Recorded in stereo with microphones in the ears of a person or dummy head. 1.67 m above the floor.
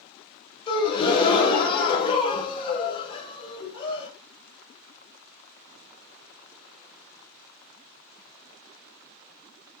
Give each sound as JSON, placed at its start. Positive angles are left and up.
{"t": 0.7, "sound": "a gasp", "side_deg": 25, "distance_m": 0.6}